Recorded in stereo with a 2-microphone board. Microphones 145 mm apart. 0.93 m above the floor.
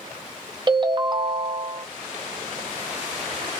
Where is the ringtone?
30° right (ahead or behind), 0.7 m.